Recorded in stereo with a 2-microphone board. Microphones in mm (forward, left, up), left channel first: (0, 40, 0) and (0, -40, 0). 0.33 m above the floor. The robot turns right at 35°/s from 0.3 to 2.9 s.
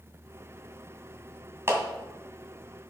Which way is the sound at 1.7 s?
35° right (ahead or behind).